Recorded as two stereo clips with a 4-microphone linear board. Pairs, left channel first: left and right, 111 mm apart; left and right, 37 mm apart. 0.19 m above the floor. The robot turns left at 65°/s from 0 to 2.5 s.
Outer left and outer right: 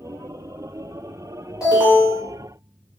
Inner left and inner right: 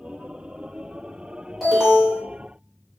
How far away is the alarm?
About 1.5 m.